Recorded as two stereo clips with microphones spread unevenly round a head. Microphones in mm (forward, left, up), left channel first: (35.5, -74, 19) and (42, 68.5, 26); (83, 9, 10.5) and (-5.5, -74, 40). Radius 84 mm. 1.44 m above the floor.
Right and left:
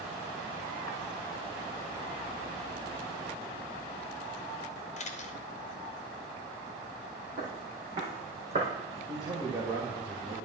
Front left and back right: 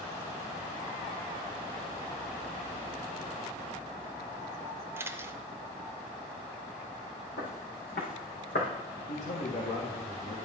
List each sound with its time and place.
5.0 s a camera shutter: 65° right, 0.9 m
7.4 s footsteps: 75° left, 3.5 m; by 8.7 s 55° left, 2.5 m
9.1 s a man speaking: 30° left, 1.6 m